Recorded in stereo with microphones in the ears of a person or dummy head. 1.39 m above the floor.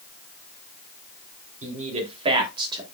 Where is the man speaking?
40° right (ahead or behind), 3 m; by 2.8 s 25° right (ahead or behind), 3 m.